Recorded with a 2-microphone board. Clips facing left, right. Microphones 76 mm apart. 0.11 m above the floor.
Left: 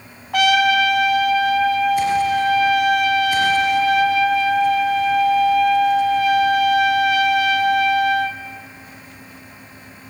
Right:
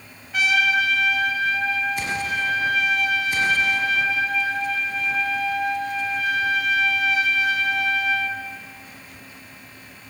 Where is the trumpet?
65° left (ahead or behind), 0.7 m.